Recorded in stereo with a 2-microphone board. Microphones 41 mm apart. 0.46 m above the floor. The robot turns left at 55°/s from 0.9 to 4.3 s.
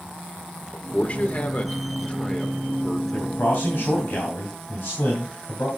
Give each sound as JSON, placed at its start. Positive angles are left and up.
{"t": 0.7, "sound": "a man speaking", "side_deg": 35, "distance_m": 1.2}
{"t": 3.1, "sound": "a man speaking", "azimuth_deg": 135, "distance_m": 3.0}